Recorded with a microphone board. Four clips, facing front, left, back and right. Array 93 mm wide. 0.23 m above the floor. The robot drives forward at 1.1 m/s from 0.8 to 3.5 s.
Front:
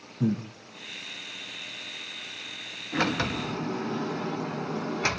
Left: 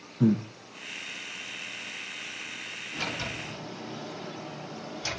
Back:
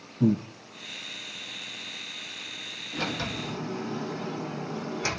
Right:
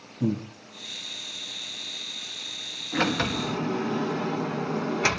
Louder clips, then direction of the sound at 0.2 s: Left 3 dB, back 4 dB; 80° left.